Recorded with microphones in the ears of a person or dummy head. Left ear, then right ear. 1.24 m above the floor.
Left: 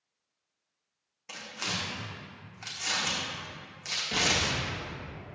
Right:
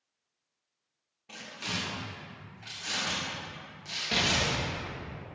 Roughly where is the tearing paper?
Left.